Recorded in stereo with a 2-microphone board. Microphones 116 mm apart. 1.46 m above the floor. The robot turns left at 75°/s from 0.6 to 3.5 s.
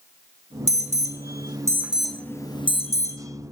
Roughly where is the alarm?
Right.